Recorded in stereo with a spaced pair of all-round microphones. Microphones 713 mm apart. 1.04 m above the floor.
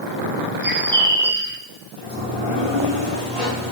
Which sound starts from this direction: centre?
A bird, at 0.6 s.